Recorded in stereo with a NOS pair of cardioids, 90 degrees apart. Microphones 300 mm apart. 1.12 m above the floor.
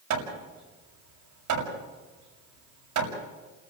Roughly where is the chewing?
No chewing in this recording.